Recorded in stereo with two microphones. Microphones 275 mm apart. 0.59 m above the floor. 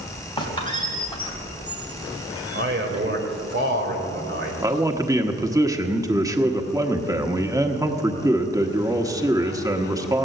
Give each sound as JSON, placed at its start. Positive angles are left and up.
{"t": 0.4, "sound": "a squeak", "side_deg": 20, "distance_m": 2.5}
{"t": 2.5, "sound": "a man speaking", "side_deg": -40, "distance_m": 2.5}
{"t": 4.6, "sound": "a man speaking", "side_deg": -10, "distance_m": 0.9}